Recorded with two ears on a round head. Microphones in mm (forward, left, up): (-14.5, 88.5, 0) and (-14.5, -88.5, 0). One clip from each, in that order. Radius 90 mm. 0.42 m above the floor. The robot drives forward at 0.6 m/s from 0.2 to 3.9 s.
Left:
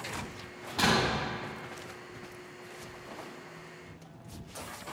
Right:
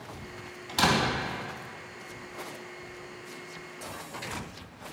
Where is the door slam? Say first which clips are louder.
Right 2 dB; 60° right (ahead or behind), 2.5 m.